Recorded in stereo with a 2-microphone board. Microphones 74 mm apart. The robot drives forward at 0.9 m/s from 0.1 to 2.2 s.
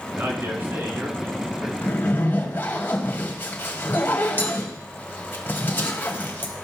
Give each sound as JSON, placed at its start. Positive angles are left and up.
{"t": 0.1, "sound": "a man speaking", "side_deg": -35, "distance_m": 3.0}
{"t": 1.8, "sound": "a zipper", "side_deg": 30, "distance_m": 1.8}